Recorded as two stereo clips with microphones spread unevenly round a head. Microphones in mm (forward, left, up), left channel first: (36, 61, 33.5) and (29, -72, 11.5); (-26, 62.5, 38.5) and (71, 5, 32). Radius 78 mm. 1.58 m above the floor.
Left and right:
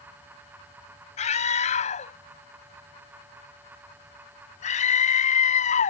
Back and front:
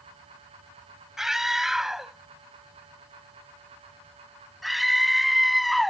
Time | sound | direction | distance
1.2 | a scream | 55° left | ?